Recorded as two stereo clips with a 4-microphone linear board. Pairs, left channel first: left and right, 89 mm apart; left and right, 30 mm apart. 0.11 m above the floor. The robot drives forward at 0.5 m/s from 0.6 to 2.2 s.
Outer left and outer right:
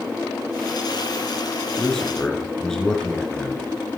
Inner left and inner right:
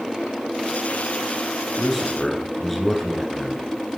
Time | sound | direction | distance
1.8 | a man speaking | 5° left (ahead or behind) | 1.5 m